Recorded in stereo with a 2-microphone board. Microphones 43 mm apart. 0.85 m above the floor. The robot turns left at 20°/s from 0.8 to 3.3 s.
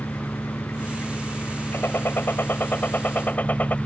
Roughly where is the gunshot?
Left.